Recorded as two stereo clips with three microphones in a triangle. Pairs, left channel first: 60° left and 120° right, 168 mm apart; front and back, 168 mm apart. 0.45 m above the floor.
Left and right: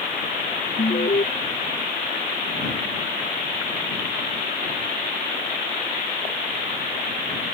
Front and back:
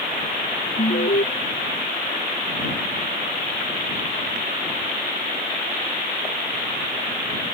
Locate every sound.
0.8 s an alarm: 20° left